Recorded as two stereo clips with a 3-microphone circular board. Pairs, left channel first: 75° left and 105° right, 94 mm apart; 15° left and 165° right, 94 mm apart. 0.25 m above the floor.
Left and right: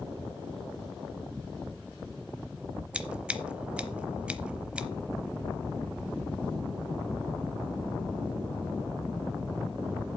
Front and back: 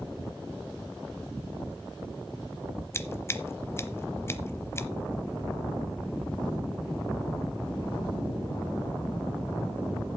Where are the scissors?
30° right, 0.8 m.